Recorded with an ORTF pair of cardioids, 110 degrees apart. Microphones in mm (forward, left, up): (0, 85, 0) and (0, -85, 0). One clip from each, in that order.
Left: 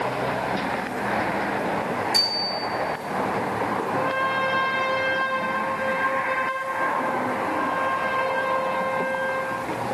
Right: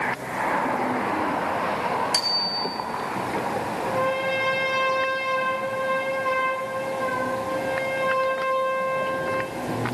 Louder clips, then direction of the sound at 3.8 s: Right 3 dB; 45° right.